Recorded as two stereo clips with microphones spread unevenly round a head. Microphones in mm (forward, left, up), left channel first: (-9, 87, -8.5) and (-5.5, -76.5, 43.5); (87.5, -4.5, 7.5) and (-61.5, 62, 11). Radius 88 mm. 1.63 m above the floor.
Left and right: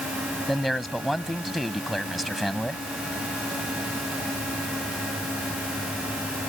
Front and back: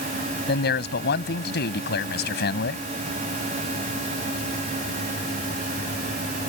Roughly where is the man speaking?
Ahead.